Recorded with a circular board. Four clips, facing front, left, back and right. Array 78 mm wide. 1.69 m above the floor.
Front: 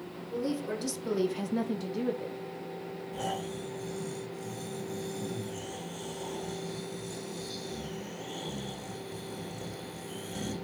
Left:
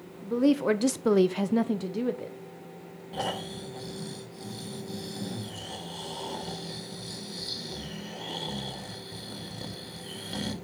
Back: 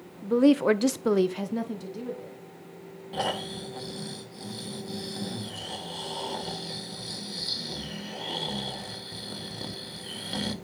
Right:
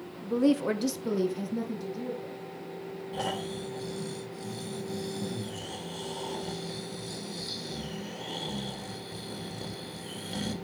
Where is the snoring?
170° left, 1.8 m.